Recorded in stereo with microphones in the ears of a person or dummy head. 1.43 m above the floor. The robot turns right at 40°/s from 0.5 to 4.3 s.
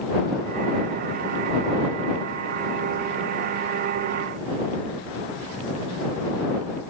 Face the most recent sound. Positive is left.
No sound to turn to.